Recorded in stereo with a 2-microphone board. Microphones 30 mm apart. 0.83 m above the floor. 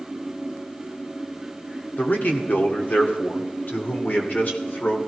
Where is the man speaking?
70° left (ahead or behind), 2 m; by 5.0 s 65° left (ahead or behind), 3 m.